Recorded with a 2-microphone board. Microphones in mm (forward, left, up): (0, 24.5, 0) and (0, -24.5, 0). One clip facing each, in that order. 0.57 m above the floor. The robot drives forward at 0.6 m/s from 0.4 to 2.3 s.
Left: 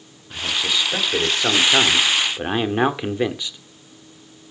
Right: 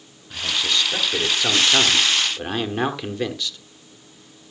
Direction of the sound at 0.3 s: 10° left (ahead or behind).